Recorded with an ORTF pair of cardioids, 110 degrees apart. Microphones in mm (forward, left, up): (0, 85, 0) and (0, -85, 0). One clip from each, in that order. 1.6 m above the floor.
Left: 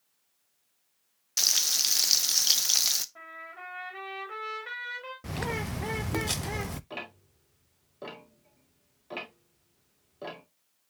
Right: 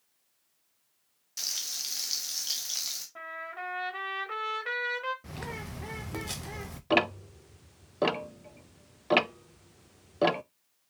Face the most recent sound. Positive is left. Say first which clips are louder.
# right 14 dB
turn(degrees=-70)